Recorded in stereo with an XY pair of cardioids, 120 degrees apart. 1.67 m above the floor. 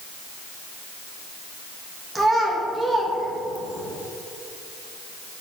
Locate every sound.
2.1 s a child speaking: 5° right, 1.3 m